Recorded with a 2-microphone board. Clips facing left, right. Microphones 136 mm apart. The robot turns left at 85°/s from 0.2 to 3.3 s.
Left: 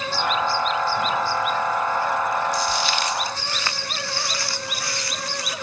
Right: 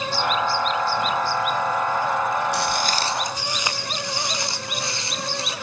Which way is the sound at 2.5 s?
70° right (ahead or behind).